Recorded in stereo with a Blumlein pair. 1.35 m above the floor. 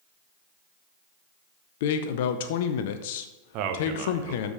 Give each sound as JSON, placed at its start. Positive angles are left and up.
{"t": 1.8, "sound": "a man speaking", "azimuth_deg": 50, "distance_m": 0.7}
{"t": 3.5, "sound": "a man speaking", "azimuth_deg": -40, "distance_m": 1.2}